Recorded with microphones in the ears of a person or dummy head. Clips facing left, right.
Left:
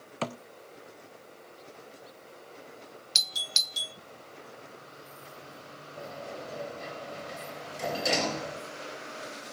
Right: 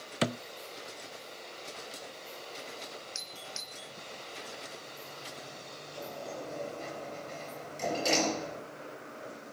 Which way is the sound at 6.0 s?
15° left (ahead or behind).